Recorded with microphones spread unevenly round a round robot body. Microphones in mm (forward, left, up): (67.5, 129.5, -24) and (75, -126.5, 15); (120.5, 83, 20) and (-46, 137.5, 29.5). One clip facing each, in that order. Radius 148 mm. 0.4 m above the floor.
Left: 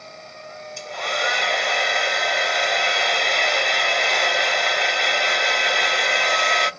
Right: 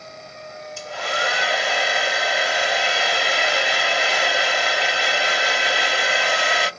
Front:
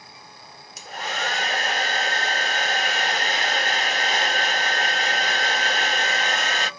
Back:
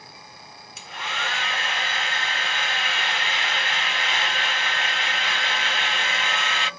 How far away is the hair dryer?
About 0.6 m.